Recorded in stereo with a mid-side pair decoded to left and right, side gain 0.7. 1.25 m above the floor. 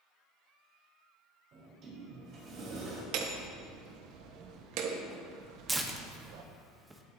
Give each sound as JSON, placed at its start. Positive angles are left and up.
{"t": 1.5, "sound": "a sliding door", "azimuth_deg": -50, "distance_m": 4.0}
{"t": 3.1, "sound": "hammering", "azimuth_deg": -65, "distance_m": 1.2}
{"t": 5.7, "sound": "tearing paper", "azimuth_deg": -15, "distance_m": 1.2}